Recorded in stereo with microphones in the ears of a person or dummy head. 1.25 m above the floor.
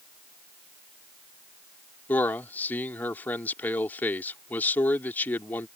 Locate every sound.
2.1 s a man speaking: 10° left (ahead or behind)